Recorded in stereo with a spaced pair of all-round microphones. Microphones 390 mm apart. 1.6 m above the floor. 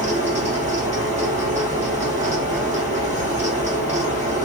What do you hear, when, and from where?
0.0 s a fan: 15° right (ahead or behind), 1.9 m